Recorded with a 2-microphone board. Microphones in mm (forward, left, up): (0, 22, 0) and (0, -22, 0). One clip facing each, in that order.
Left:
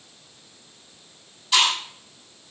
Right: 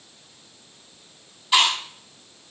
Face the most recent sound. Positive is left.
turn(degrees=-10)  # may be behind; listen again after turning